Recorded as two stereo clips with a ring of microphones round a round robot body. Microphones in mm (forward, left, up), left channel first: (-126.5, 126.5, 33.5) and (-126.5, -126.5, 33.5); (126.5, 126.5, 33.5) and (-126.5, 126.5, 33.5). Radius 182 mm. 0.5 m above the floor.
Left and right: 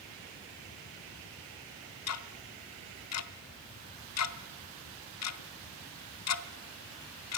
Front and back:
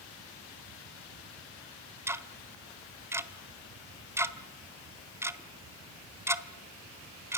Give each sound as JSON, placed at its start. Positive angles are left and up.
{"t": 2.1, "sound": "ticking", "azimuth_deg": 100, "distance_m": 1.4}